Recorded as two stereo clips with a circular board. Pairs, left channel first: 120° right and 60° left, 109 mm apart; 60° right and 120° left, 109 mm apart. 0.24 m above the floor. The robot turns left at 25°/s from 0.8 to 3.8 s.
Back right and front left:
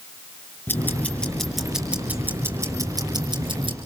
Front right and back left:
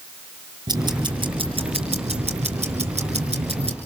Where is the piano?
No piano in this recording.